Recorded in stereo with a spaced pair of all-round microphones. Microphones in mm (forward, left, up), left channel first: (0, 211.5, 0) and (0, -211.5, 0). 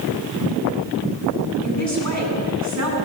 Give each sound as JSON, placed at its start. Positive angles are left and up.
{"t": 1.6, "sound": "a man speaking", "side_deg": -40, "distance_m": 8.5}